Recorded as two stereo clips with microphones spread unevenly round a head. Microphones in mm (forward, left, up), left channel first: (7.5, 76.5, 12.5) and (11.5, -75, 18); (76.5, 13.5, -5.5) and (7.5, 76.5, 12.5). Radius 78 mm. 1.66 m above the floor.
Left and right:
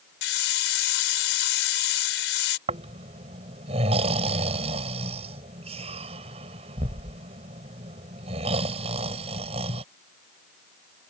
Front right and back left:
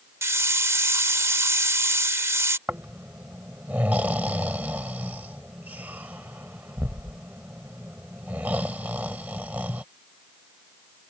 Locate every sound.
0.2 s a hiss: 80° left
2.7 s snoring: 145° right